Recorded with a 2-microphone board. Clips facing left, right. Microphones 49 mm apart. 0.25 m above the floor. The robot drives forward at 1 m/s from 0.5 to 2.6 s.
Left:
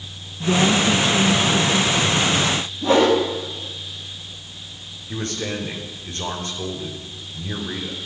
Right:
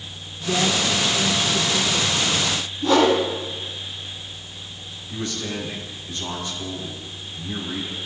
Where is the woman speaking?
50° left (ahead or behind), 2.0 m; by 2.1 s 30° left (ahead or behind), 3 m.